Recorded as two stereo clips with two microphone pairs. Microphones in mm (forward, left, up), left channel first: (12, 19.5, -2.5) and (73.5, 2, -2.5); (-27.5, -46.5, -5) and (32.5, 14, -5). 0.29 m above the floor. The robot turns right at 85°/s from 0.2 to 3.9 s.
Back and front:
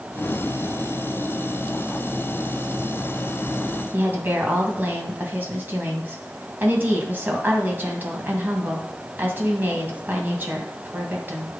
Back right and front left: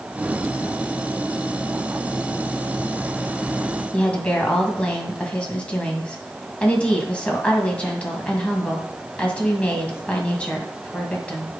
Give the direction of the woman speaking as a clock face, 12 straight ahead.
2 o'clock.